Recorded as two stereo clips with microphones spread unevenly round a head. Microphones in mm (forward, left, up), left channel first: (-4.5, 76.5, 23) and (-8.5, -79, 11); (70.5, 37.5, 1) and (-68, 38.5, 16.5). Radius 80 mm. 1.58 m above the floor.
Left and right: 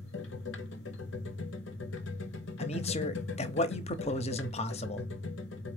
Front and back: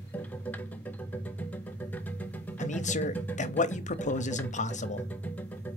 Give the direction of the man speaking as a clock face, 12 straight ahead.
11 o'clock.